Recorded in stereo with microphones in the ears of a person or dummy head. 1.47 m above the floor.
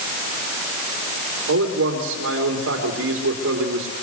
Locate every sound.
1.5 s a man speaking: 80° right, 3.5 m